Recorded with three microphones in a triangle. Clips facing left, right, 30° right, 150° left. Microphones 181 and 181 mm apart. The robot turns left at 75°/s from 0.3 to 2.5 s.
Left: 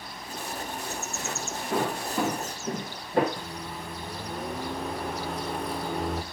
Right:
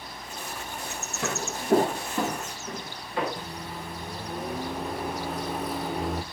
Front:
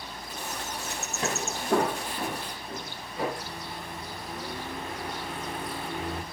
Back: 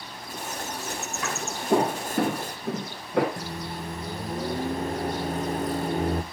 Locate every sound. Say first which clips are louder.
1.2 s footsteps: right 4 dB, front 2 dB; 90° right, 2.5 m; by 3.3 s 135° left, 3.5 m
3.4 s a microwave: even, back 5 dB; 175° right, 0.8 m